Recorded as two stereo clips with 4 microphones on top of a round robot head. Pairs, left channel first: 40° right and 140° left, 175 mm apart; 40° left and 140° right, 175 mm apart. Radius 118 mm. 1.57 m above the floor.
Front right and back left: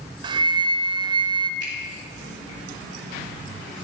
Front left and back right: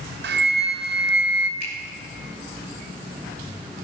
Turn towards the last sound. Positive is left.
turn(degrees=75)